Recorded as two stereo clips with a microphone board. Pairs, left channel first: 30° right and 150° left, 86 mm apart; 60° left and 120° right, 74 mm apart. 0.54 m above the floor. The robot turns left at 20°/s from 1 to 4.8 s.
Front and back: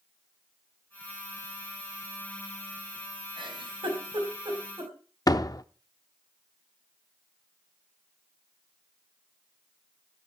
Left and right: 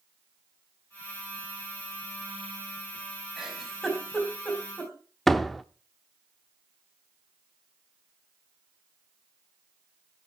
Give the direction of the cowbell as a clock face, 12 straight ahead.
No cowbell in this recording.